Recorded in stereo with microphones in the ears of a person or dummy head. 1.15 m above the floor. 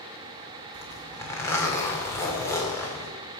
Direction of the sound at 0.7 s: 15° left (ahead or behind).